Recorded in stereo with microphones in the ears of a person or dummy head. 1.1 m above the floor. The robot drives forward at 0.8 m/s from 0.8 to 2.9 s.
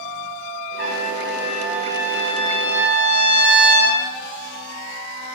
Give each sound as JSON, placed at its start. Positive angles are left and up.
{"t": 0.8, "sound": "a trumpet", "side_deg": -60, "distance_m": 4.5}